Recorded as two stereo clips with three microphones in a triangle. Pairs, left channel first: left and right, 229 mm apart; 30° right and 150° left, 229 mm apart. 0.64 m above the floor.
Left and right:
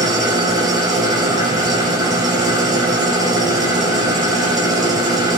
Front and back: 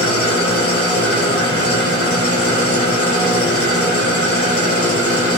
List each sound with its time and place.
0.0 s an engine running: 15° right, 2 m